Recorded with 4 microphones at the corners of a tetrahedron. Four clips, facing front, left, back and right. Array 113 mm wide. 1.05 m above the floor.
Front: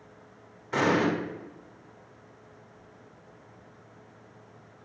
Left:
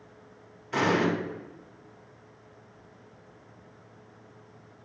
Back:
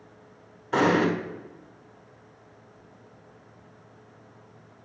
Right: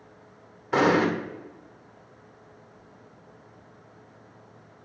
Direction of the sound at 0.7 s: 120° right.